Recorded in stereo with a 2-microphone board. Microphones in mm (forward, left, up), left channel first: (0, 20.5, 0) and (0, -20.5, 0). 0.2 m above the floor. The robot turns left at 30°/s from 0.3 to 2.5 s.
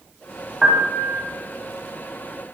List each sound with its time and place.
0.6 s a piano: 10° right (ahead or behind), 0.8 m; by 1.2 s 20° right (ahead or behind), 0.8 m